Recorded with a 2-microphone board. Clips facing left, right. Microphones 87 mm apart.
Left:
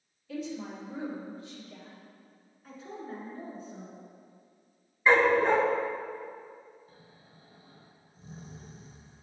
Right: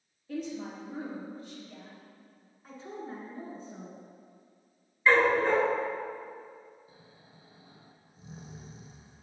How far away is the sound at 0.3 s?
About 2.5 m.